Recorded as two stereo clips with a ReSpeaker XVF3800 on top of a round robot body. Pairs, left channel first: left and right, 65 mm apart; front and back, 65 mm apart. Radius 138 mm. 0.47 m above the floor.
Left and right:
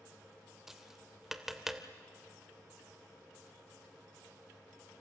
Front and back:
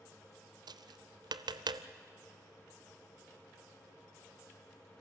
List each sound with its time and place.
0.7 s tapping: 175° right, 0.7 m